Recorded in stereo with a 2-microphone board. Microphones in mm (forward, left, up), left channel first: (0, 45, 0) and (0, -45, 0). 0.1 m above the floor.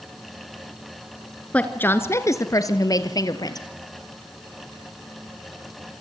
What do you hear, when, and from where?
1.5 s a woman speaking: 15° left (ahead or behind), 1.4 m; by 3.7 s 45° left (ahead or behind), 2.5 m